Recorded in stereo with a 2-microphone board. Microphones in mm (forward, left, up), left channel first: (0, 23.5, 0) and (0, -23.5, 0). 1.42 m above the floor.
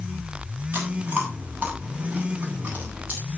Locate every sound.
0.7 s chewing: 35° right (ahead or behind), 9 m